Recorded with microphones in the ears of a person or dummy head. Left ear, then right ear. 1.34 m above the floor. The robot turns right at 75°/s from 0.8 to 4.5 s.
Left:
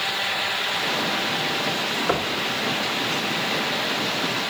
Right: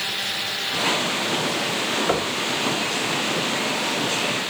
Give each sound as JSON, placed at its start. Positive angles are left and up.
{"t": 2.1, "sound": "knocking", "side_deg": -5, "distance_m": 0.6}